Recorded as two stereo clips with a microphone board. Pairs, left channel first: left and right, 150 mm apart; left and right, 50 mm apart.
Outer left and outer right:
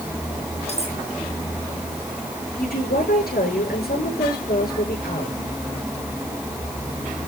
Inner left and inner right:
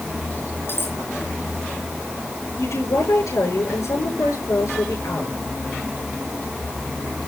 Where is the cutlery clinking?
45° left (ahead or behind), 5 m.